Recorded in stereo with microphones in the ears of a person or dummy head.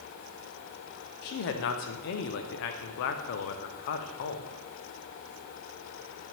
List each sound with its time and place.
1.2 s a man speaking: 55° left (ahead or behind), 0.7 m